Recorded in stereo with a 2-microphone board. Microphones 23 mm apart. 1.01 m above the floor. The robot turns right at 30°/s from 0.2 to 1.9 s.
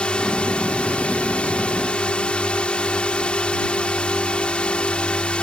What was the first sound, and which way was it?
A drone, 60° left.